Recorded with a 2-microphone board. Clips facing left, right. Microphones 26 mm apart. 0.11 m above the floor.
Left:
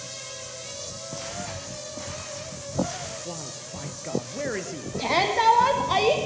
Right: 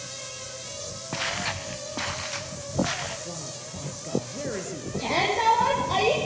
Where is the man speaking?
30° left (ahead or behind), 2.0 m.